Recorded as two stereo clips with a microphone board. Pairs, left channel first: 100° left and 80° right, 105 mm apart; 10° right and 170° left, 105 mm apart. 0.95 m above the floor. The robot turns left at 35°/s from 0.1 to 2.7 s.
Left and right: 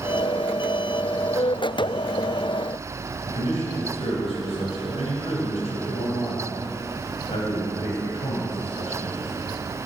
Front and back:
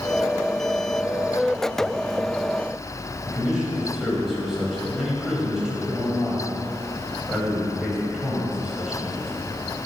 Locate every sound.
3.3 s a man speaking: 85° left, 5 m